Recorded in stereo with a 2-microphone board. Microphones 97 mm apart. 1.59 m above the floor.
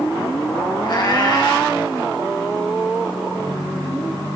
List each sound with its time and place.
0.8 s a cat meowing: 50° left (ahead or behind), 3 m